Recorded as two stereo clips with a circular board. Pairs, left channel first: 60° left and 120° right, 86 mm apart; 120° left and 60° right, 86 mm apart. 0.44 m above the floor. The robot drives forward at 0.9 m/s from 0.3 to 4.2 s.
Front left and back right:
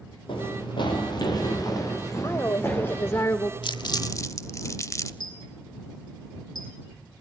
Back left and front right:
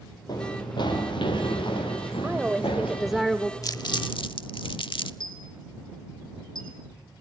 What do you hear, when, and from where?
0.3 s running footsteps: 80° left, 6 m; by 3.2 s 135° left, 8 m
2.2 s a woman speaking: 15° left, 1.8 m; by 3.5 s 45° left, 1.0 m
3.6 s crumpling: 75° left, 0.8 m; by 5.1 s 110° left, 0.9 m
5.2 s a dropped coin: 95° left, 4.5 m